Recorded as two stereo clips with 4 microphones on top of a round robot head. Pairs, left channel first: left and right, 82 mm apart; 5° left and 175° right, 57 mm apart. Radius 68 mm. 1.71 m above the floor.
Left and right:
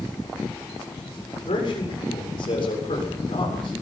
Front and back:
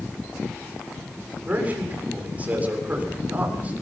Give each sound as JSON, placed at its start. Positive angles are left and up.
{"t": 1.4, "sound": "a man speaking", "azimuth_deg": 120, "distance_m": 7.5}